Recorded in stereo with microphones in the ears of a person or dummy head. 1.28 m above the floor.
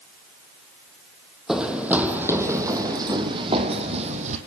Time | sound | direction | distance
1.5 | running footsteps | 5° right (ahead or behind) | 3 m